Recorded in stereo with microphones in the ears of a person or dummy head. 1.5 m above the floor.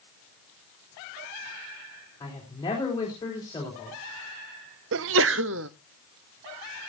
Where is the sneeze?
65° right (ahead or behind), 0.6 m.